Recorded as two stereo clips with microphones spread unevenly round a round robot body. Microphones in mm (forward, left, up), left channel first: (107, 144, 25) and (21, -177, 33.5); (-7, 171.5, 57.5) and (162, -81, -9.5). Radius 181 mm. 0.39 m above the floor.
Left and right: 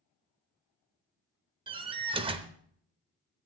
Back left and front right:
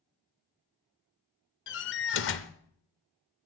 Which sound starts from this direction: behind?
A door slam, at 1.7 s.